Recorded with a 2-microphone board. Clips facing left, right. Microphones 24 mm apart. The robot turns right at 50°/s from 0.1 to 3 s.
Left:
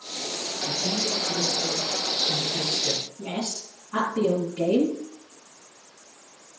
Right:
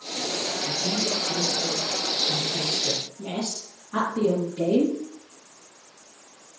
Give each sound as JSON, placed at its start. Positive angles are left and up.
{"t": 0.7, "sound": "a man speaking", "azimuth_deg": -30, "distance_m": 4.0}
{"t": 3.2, "sound": "a woman speaking", "side_deg": 60, "distance_m": 2.5}